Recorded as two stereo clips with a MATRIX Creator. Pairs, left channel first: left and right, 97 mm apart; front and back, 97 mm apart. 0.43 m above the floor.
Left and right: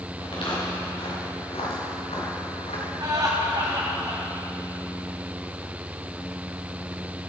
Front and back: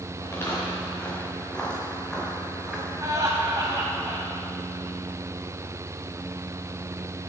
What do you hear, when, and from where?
0.2 s footsteps: 60° left, 5 m; by 2.9 s 100° left, 3 m
3.0 s laughter: 135° right, 3 m